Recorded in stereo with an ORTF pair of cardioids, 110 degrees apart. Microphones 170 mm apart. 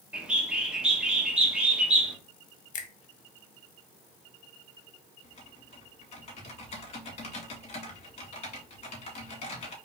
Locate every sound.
0.1 s a bird: 5° right, 1.1 m
2.7 s a finger snap: 55° left, 1.0 m
5.2 s typing on a keyboard: 40° left, 2 m